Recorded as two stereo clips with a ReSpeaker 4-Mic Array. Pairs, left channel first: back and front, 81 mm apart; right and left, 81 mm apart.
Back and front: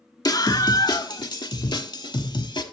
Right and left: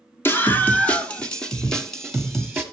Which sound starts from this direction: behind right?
A scream, at 0.2 s.